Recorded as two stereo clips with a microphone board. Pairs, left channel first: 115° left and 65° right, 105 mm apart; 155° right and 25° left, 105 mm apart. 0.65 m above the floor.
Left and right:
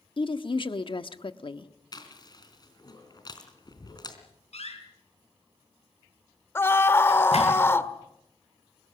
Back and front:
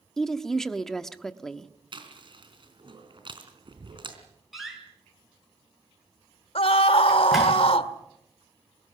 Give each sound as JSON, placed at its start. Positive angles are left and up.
{"t": 0.2, "sound": "a woman speaking", "azimuth_deg": 115, "distance_m": 1.2}
{"t": 1.9, "sound": "chewing", "azimuth_deg": 60, "distance_m": 3.5}
{"t": 4.5, "sound": "a door slam", "azimuth_deg": 110, "distance_m": 6.5}
{"t": 6.5, "sound": "a scream", "azimuth_deg": 180, "distance_m": 1.6}